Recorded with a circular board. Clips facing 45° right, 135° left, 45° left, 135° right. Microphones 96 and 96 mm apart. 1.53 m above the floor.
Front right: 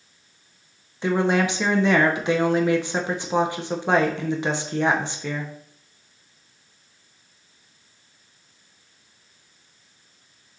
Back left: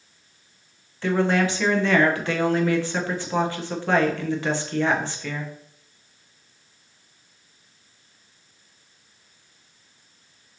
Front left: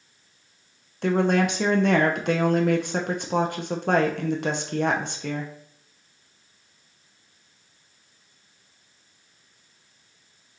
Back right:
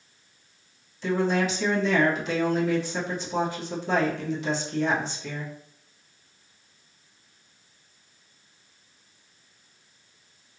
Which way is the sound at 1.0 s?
25° left.